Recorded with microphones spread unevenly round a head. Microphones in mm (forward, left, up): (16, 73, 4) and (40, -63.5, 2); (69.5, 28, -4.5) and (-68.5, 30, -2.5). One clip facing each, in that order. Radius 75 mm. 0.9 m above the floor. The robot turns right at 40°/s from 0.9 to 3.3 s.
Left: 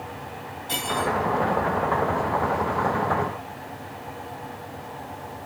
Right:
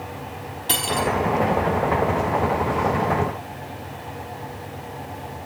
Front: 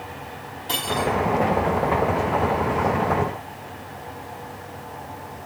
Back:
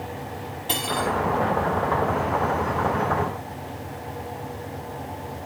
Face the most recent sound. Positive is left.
turn(degrees=-10)